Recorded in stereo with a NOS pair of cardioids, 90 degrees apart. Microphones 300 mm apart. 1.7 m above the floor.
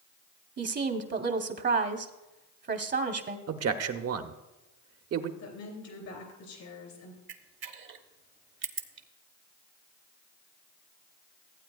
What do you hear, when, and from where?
0.6 s a woman speaking: 35° right, 1.0 m
3.5 s a man speaking: 55° right, 1.0 m
5.4 s a woman speaking: 70° left, 3 m
7.3 s a camera shutter: 45° right, 1.0 m